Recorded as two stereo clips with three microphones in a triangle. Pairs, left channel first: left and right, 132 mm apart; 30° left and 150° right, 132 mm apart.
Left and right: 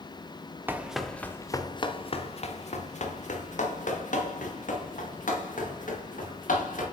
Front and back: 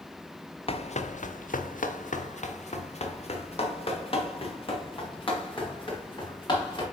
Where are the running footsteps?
15° right, 1.0 m; by 6.8 s 85° left, 5 m.